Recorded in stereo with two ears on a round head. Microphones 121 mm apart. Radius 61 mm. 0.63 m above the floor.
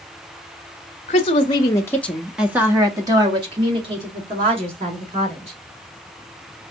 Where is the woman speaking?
45° left (ahead or behind), 1.0 m; by 5.6 s 50° right (ahead or behind), 2.5 m.